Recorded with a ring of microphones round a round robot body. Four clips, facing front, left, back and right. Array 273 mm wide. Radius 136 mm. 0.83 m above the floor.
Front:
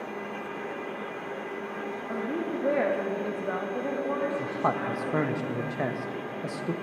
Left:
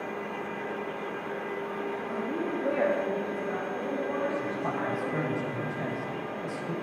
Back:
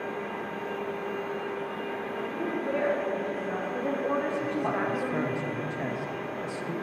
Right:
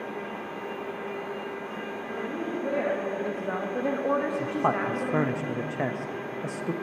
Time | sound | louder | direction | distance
2.1 | a woman speaking | right 1 dB, front 3 dB | 20° left | 1.6 m
4.4 | a man speaking | right 5 dB, even | 55° right | 0.6 m